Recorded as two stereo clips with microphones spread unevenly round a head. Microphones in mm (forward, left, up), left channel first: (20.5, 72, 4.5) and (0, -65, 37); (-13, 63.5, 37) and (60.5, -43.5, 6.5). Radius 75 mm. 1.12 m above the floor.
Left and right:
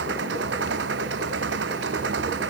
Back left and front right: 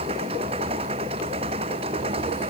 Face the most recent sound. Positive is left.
turn(degrees=-110)